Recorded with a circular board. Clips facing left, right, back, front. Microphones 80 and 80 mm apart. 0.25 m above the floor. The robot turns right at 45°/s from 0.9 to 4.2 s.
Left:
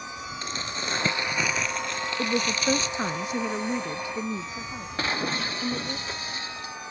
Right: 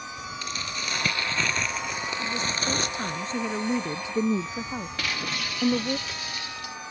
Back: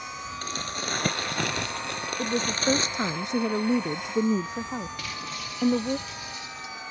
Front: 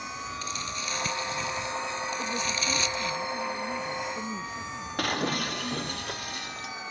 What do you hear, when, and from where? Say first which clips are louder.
0.4 s crumpling: left 2 dB, back 2 dB; 145° left; by 3.2 s 110° right
2.2 s a woman speaking: left 6 dB, back 4 dB; 120° left; by 6.0 s 150° right
5.0 s breaking glass: left 8 dB, front 7 dB; 35° left